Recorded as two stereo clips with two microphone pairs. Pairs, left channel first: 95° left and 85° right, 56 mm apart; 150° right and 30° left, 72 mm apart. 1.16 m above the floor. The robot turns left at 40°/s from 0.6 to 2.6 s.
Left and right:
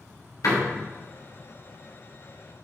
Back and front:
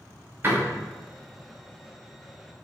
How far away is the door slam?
About 2.5 m.